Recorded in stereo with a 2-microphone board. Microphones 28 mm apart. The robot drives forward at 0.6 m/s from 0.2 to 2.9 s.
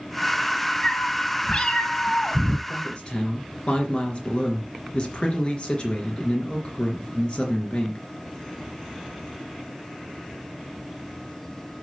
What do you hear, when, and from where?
0.8 s a cat meowing: 25° left (ahead or behind), 1.5 m; by 2.6 s 50° left (ahead or behind), 0.8 m
2.7 s a man speaking: 35° left (ahead or behind), 3 m